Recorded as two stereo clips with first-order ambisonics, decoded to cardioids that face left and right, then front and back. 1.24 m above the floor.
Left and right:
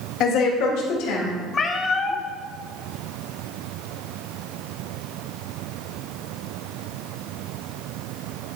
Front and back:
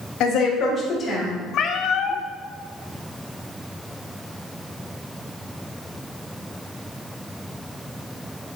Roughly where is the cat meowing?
Ahead left.